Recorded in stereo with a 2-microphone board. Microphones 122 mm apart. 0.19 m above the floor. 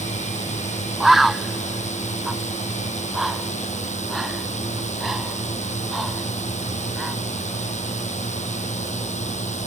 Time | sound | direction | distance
0.0 | a drone | 75° left (ahead or behind) | ?
1.0 | a bird | centre (ahead or behind) | ?